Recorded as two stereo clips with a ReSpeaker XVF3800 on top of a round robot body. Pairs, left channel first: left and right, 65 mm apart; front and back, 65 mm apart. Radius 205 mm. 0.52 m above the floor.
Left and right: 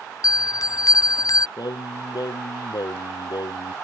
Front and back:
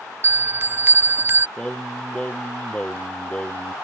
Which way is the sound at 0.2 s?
120° left.